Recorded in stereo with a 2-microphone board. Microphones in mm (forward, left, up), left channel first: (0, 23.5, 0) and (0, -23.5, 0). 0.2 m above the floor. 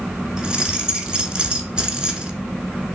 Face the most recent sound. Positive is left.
turn(degrees=-20)  # may be behind; listen again after turning